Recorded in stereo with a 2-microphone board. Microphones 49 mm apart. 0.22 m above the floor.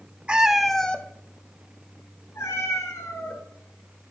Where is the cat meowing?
25° right (ahead or behind), 0.5 m; by 4.1 s 80° left, 1.9 m.